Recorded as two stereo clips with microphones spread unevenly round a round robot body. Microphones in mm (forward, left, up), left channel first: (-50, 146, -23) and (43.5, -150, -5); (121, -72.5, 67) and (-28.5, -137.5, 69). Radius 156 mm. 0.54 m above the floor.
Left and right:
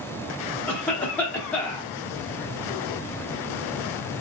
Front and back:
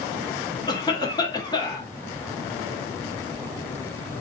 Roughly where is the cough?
Ahead left.